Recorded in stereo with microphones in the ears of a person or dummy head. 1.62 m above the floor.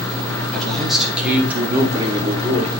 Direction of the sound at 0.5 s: 5° left (ahead or behind).